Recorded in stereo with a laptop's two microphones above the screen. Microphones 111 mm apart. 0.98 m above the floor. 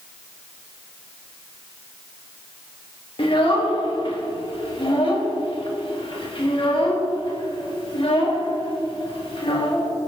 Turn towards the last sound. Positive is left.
turn(degrees=50)  # may be behind; listen again after turning